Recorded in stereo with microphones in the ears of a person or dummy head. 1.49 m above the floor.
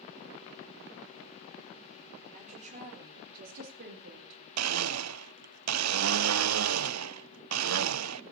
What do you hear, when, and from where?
2.3 s a woman speaking: 35° right (ahead or behind), 6 m; by 4.5 s 65° right (ahead or behind), 4.5 m
4.6 s a blender: 90° right, 0.6 m